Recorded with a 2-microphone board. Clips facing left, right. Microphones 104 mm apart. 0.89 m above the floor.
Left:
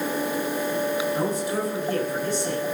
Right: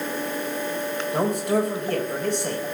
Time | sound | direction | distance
1.1 | a man speaking | 60° right (ahead or behind) | 4.5 m